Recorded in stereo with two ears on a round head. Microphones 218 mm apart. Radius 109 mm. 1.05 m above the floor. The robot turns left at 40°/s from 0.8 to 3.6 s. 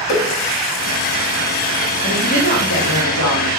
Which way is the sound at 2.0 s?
160° left.